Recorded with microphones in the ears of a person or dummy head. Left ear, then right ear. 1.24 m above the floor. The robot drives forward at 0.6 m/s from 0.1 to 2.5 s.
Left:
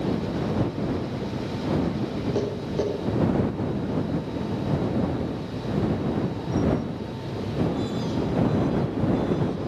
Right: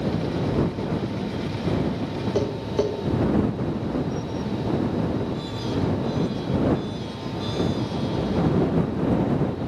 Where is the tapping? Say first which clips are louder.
Right 4 dB; 25° right (ahead or behind), 4 m.